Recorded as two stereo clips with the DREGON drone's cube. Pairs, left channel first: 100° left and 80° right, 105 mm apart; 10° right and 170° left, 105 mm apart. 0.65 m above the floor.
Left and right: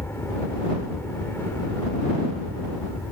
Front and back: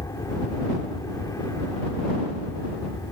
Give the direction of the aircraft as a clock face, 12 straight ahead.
11 o'clock.